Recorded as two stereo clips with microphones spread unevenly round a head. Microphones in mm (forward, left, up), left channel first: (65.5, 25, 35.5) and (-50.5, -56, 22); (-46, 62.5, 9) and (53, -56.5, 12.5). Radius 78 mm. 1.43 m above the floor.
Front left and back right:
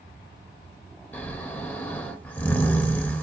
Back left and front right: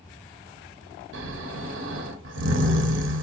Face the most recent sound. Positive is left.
turn(degrees=-45)